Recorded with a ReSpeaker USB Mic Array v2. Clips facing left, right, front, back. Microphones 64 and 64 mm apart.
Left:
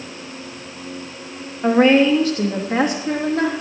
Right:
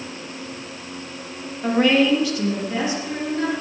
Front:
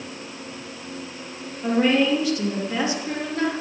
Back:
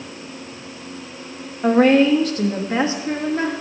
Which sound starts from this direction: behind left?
A woman speaking, at 1.6 s.